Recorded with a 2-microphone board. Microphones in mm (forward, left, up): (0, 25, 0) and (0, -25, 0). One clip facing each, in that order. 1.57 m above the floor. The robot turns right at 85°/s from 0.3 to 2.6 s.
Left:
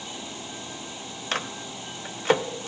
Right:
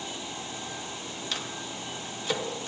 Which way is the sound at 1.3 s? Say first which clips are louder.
Left 7 dB; 45° left (ahead or behind).